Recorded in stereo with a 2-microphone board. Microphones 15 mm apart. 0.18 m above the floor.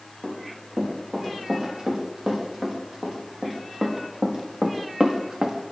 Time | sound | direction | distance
0.2 | running footsteps | 35° right (ahead or behind) | 6.5 m